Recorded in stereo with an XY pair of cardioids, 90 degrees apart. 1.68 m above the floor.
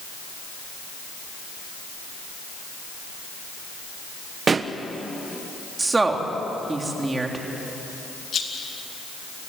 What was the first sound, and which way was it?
A pop, 40° right.